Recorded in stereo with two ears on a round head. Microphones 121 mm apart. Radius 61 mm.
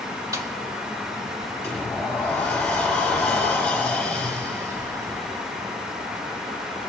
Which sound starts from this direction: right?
A snare drum, at 0.3 s.